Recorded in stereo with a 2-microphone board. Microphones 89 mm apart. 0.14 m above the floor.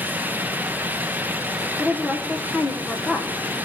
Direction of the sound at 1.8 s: 20° left (ahead or behind).